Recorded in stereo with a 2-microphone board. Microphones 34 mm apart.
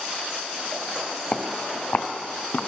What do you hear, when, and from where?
1.3 s footsteps: 40° left (ahead or behind), 1.2 m; by 2.6 s 60° left (ahead or behind), 2 m